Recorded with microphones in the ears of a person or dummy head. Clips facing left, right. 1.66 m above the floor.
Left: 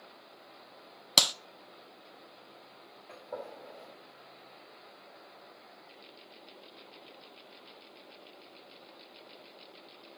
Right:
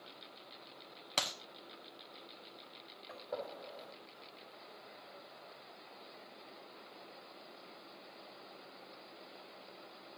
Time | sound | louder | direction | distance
1.2 | a clap | left 7 dB | 50° left (ahead or behind) | 0.7 m
3.1 | a gunshot | left 1 dB | 15° right (ahead or behind) | 6 m